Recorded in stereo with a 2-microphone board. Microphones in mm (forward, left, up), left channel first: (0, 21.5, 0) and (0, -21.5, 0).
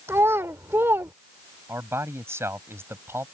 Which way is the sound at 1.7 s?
65° right (ahead or behind).